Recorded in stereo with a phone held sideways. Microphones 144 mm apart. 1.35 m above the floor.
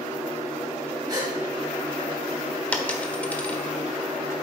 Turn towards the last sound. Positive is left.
turn(degrees=10)  # may be behind; listen again after turning